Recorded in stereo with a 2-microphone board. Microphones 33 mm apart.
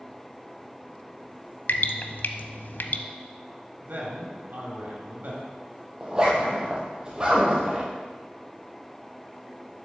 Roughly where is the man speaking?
Right.